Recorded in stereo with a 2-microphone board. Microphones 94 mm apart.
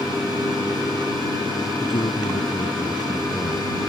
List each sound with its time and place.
1.8 s a man speaking: 60° left (ahead or behind); by 3.7 s 55° left (ahead or behind)